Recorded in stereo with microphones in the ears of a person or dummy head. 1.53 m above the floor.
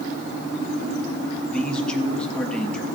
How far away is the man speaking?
About 1.9 m.